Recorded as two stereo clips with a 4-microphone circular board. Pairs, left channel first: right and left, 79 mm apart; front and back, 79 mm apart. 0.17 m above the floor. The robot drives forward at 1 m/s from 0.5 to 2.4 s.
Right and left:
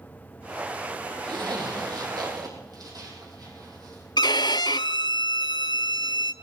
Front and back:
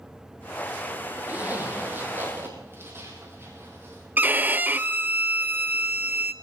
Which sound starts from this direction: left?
A zipper, at 1.3 s.